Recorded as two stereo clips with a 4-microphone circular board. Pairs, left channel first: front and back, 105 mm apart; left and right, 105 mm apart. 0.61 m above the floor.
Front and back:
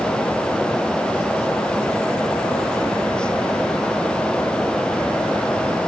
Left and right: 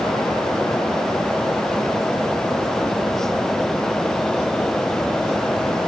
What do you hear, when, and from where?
Only background noise.